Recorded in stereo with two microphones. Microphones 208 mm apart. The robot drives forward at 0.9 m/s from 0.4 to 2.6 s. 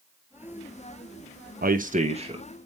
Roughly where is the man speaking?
Right.